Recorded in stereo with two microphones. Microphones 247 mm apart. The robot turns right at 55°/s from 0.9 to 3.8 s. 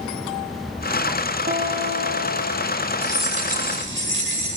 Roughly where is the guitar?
Behind right.